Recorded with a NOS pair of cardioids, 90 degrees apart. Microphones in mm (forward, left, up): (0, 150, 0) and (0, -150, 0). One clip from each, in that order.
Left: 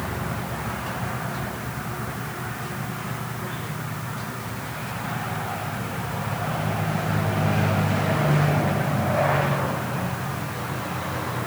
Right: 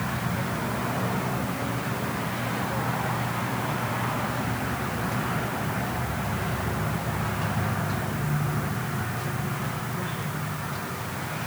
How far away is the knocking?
No knocking in this recording.